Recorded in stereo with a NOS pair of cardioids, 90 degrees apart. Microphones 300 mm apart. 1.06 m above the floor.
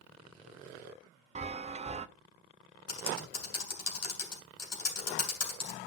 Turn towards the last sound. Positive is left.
turn(degrees=55)